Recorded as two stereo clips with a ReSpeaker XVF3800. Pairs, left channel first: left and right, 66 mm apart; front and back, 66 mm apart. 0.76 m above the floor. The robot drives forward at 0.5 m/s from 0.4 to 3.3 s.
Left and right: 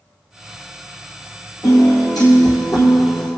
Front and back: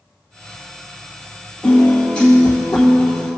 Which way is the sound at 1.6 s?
70° left.